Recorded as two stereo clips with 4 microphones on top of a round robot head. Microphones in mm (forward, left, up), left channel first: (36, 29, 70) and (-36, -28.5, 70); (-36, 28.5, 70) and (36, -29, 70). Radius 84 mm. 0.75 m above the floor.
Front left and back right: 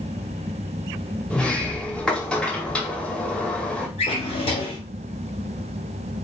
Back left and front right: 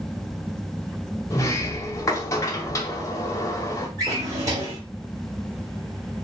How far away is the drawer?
About 1.4 m.